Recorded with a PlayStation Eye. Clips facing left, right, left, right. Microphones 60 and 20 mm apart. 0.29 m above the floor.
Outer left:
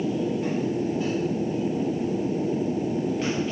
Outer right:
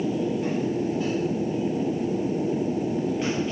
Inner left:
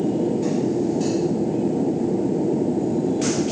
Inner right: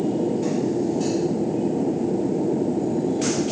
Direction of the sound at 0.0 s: 5° right (ahead or behind).